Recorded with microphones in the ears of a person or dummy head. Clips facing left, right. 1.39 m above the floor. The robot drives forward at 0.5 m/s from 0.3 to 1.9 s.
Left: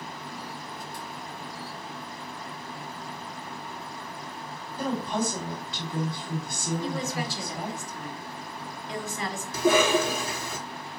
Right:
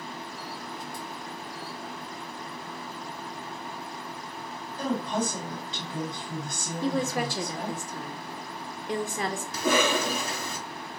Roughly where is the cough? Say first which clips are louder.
Left 4 dB; right.